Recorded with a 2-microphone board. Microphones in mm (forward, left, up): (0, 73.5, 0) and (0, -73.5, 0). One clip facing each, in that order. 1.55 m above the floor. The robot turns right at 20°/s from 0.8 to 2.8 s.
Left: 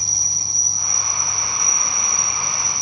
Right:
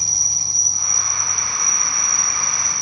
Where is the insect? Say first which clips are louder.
Even; 160° left, 2.5 m; by 2.8 s 160° right, 2.5 m.